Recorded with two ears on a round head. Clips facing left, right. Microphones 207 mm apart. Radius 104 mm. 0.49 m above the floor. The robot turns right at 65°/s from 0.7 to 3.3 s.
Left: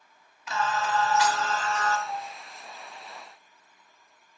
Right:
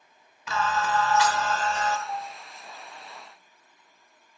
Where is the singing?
95° right, 1.1 m; by 2.0 s 15° right, 1.1 m.